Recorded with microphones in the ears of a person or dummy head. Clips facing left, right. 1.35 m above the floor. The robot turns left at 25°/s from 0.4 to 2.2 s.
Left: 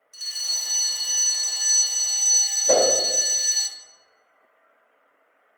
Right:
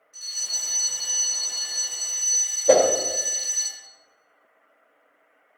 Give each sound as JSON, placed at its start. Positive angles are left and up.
{"t": 0.1, "sound": "a fire alarm", "azimuth_deg": 100, "distance_m": 1.6}
{"t": 2.7, "sound": "a whoosh", "side_deg": -60, "distance_m": 1.9}